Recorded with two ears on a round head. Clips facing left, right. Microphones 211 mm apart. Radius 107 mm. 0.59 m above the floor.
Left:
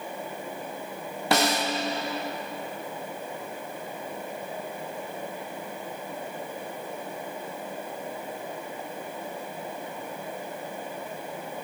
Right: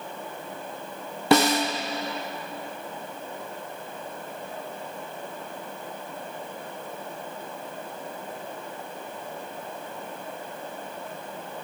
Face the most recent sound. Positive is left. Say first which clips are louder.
# right 5 dB
turn(degrees=-70)  # may be behind; listen again after turning